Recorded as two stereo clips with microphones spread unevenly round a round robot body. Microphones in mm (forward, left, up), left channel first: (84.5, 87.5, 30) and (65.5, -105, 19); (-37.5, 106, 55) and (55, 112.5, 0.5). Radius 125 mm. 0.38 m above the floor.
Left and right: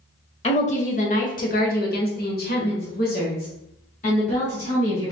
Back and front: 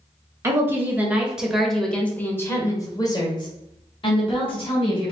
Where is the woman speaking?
30° left, 1.6 m; by 5.1 s 145° left, 2.5 m.